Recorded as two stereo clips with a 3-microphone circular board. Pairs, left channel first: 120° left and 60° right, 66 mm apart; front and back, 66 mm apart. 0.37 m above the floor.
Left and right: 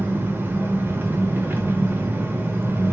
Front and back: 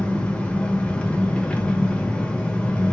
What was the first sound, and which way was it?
An engine running, 60° right.